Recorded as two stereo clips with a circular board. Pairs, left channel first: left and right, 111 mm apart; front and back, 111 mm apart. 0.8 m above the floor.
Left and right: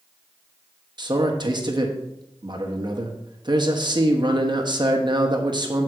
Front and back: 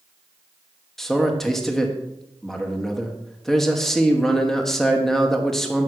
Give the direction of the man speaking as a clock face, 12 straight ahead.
3 o'clock.